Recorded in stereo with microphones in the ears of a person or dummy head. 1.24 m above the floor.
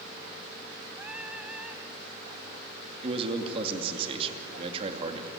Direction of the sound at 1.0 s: 5° right (ahead or behind).